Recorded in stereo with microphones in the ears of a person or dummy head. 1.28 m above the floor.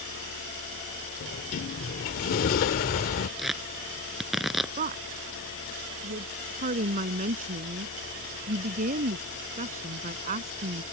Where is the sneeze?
No sneeze in this recording.